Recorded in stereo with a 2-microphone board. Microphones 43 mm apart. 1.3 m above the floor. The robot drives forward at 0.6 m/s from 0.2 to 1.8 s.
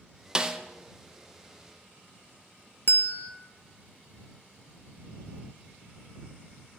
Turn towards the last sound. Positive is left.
turn(degrees=50)  # may be behind; listen again after turning